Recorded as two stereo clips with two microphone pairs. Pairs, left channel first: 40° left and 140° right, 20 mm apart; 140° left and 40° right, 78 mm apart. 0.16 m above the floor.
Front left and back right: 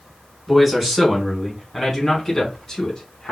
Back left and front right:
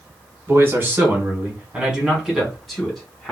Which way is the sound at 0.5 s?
60° right.